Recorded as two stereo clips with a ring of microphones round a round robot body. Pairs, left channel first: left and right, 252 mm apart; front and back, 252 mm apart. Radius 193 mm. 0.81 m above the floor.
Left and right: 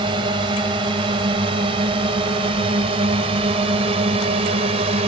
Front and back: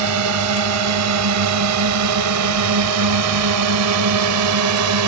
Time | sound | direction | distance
0.0 | a drone | 165° right | ?